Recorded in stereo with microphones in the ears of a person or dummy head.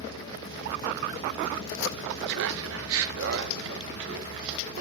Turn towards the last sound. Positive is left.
turn(degrees=-70)  # may be behind; listen again after turning